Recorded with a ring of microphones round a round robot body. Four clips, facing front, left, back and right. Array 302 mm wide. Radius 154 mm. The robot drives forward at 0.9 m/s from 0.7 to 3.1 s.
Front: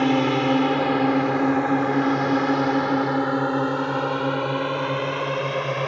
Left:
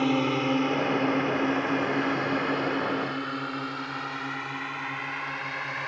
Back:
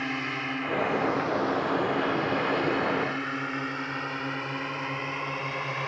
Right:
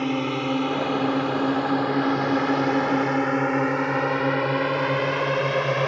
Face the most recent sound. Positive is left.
turn(degrees=-60)